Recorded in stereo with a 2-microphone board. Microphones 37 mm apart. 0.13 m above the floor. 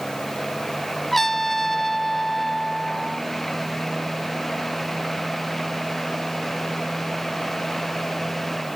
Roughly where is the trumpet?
Centre.